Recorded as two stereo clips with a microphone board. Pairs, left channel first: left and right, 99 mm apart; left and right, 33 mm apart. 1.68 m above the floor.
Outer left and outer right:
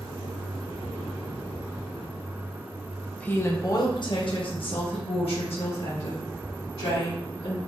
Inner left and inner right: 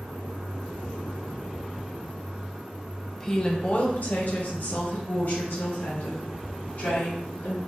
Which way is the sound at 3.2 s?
15° left (ahead or behind).